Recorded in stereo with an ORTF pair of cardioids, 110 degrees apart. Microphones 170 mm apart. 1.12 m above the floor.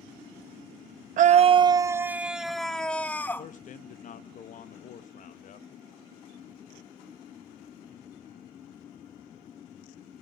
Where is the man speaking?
50° left, 1.0 m.